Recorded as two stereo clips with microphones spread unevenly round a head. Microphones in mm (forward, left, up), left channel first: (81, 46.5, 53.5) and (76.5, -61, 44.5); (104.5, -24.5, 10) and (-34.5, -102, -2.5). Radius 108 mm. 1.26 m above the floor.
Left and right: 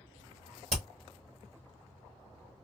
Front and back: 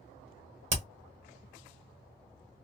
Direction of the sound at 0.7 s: 120° right.